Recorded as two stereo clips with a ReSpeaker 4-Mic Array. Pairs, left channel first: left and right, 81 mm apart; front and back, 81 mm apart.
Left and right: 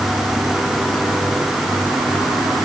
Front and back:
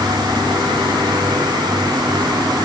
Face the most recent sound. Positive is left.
No sound to turn to.